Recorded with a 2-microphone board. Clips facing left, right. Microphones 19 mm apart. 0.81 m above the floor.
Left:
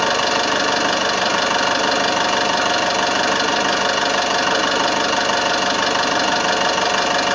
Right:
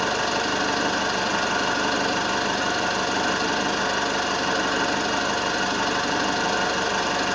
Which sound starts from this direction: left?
An engine running, at 0.0 s.